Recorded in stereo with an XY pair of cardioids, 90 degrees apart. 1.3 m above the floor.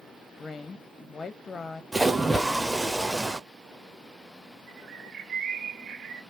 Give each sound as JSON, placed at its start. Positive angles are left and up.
{"t": 0.4, "sound": "a woman speaking", "azimuth_deg": 40, "distance_m": 0.6}
{"t": 1.9, "sound": "a splash", "azimuth_deg": -10, "distance_m": 0.8}
{"t": 4.7, "sound": "a bird", "azimuth_deg": -55, "distance_m": 1.4}